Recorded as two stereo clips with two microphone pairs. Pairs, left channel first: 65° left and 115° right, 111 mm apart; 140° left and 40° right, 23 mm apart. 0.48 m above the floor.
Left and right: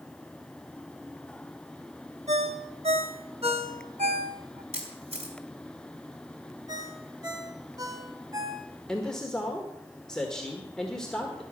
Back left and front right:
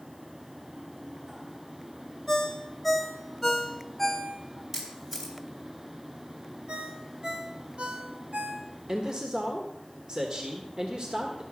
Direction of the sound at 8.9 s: 15° right.